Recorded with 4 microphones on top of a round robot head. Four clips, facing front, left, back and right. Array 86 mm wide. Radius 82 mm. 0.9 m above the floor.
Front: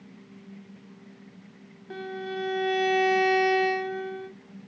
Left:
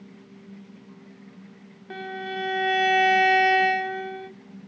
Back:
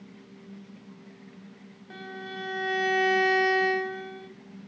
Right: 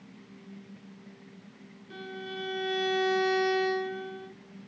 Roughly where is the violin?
Left.